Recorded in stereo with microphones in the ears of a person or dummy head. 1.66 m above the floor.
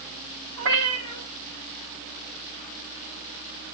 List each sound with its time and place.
0.6 s a cat meowing: 65° right (ahead or behind), 3 m